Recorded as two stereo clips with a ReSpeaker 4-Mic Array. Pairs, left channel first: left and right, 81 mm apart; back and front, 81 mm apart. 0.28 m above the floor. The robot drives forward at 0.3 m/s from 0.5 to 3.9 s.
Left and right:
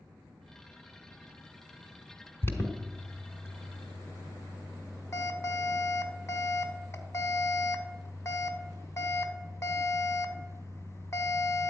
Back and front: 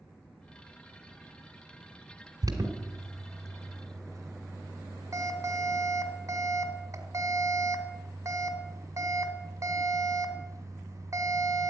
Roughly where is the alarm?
Ahead left.